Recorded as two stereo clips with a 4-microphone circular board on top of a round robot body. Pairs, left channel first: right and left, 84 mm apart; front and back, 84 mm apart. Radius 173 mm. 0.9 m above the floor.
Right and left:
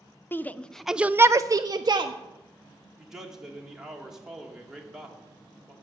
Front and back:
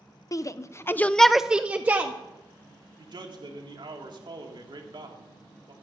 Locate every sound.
0.3 s a shout: 30° right, 0.7 m; by 2.1 s 120° left, 0.8 m
3.0 s a man speaking: 175° left, 1.9 m